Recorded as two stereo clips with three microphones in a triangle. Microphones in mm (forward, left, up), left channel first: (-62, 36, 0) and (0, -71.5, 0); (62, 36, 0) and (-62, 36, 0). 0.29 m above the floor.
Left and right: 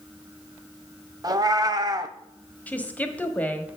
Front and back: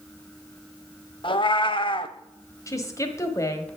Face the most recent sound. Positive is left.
turn(degrees=50)